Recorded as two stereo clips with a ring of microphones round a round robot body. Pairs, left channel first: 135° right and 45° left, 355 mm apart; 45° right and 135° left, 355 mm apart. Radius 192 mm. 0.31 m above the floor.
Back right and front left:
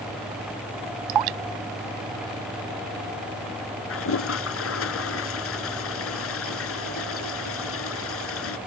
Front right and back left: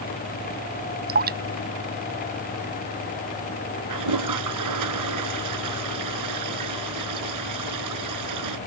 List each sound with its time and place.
1.1 s dripping: 70° left
3.9 s a toilet flushing: 170° left